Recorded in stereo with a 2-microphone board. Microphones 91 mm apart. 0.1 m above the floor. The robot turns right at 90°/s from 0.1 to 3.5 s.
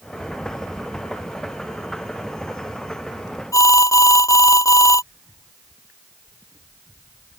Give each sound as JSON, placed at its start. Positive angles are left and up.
{"t": 3.5, "sound": "an alarm", "side_deg": 35}